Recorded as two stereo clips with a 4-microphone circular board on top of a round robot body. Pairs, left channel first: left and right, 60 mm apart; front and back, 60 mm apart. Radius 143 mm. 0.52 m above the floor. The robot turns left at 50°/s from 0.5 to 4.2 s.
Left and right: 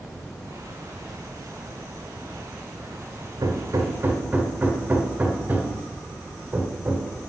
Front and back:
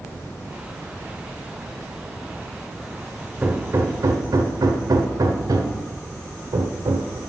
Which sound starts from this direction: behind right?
Hammering, at 3.4 s.